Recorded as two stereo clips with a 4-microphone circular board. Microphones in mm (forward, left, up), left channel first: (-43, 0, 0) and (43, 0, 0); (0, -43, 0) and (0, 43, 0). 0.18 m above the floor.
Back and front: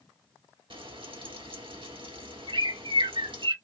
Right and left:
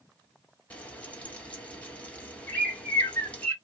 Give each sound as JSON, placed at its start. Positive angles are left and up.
{"t": 0.7, "sound": "frying", "azimuth_deg": -15, "distance_m": 1.5}
{"t": 2.5, "sound": "a bird", "azimuth_deg": -15, "distance_m": 3.5}